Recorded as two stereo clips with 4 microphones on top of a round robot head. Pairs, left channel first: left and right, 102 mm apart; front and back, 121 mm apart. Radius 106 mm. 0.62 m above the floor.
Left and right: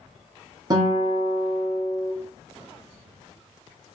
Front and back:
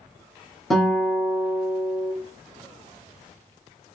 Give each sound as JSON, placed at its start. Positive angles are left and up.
{"t": 0.7, "sound": "a guitar", "azimuth_deg": -85, "distance_m": 1.0}